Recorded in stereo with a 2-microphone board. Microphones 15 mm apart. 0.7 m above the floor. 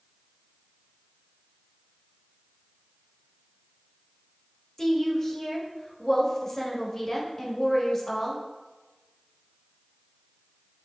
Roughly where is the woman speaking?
Left.